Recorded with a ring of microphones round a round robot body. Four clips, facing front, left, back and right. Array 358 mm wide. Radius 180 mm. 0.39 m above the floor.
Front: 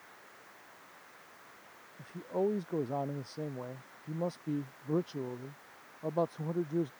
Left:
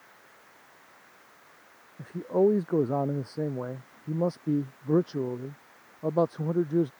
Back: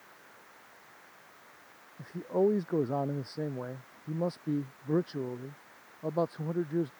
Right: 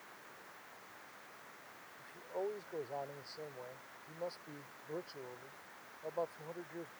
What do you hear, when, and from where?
2.0 s a man speaking: 105° left; by 6.9 s 95° left